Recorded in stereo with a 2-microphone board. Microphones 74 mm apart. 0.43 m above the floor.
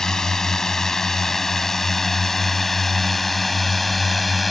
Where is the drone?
5° left (ahead or behind); by 4.5 s centre (ahead or behind).